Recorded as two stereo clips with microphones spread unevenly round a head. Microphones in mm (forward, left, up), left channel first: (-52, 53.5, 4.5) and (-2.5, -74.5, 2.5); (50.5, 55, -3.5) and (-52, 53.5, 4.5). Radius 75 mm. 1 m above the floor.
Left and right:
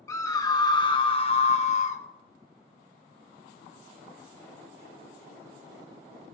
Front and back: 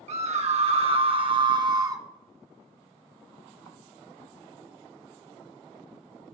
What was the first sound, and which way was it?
A scream, straight behind.